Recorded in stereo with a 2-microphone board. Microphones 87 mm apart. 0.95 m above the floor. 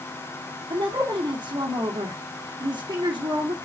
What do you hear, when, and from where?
0.7 s a woman speaking: 60° right (ahead or behind), 2.5 m